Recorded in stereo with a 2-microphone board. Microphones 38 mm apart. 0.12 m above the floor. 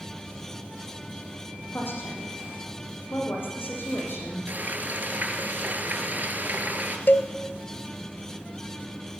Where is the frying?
50° right (ahead or behind), 2 m.